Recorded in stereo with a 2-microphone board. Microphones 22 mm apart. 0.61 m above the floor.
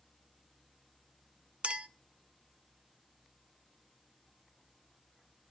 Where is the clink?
50° right (ahead or behind), 0.8 m.